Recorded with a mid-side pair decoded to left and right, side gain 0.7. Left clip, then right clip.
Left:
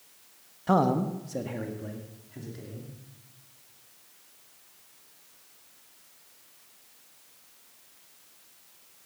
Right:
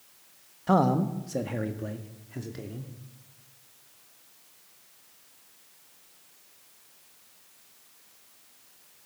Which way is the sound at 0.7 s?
Straight ahead.